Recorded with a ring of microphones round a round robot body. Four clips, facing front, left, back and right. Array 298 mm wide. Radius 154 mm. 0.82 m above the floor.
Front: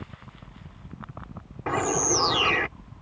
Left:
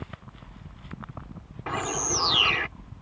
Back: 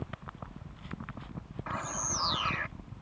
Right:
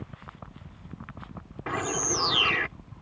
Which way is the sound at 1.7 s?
15° right.